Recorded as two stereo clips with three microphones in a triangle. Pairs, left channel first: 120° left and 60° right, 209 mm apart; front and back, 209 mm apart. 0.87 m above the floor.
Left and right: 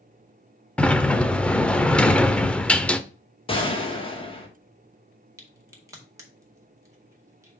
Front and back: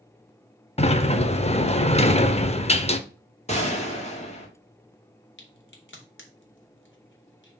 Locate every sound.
0.8 s a sliding door: 40° left, 0.6 m
3.5 s a gunshot: 55° left, 1.6 m
5.4 s a crack: 15° left, 1.8 m